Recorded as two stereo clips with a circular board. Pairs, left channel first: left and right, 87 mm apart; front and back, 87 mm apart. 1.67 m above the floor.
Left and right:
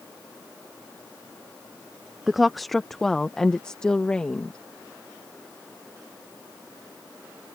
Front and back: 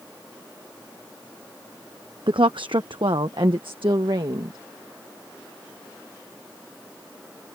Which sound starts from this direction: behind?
A woman speaking, at 2.3 s.